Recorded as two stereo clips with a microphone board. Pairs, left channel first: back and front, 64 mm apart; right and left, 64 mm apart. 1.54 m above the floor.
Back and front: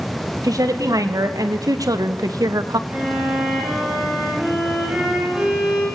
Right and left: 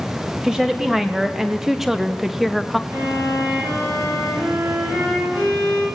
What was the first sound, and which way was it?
A woman speaking, 10° left.